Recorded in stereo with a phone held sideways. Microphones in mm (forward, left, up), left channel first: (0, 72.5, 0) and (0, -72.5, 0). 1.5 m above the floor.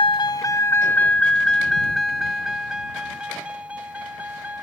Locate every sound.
0.0 s a vehicle: 35° left (ahead or behind); by 4.6 s 10° right (ahead or behind)